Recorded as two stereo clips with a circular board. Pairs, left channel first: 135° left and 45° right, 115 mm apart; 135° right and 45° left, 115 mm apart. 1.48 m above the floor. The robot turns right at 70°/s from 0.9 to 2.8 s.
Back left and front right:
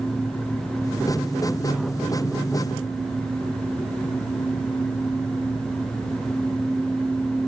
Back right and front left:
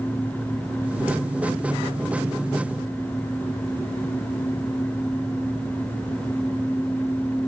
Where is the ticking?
No ticking in this recording.